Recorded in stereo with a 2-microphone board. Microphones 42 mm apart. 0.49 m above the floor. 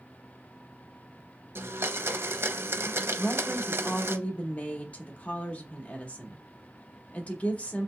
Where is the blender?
70° right (ahead or behind), 0.5 m.